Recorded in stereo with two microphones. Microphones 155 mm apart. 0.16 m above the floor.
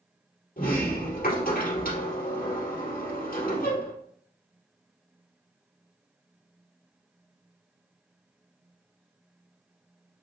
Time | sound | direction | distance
0.6 | a sliding door | 70° left (ahead or behind) | 2.5 m